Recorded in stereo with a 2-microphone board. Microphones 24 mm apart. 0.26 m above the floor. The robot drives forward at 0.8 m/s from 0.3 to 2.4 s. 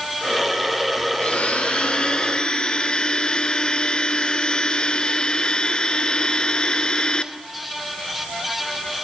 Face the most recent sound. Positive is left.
turn(degrees=40)  # may be behind; listen again after turning